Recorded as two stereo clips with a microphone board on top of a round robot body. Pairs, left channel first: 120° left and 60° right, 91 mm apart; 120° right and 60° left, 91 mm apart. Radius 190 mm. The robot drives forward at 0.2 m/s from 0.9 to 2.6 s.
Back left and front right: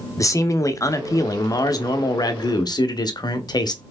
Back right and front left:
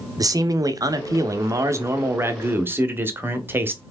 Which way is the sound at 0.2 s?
85° left.